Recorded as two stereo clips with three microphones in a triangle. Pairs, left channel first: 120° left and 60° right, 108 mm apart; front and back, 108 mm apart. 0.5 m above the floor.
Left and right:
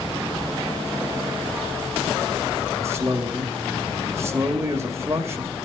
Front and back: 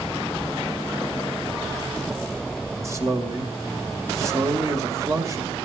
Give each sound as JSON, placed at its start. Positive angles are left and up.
{"t": 2.8, "sound": "a man speaking", "azimuth_deg": -120, "distance_m": 1.9}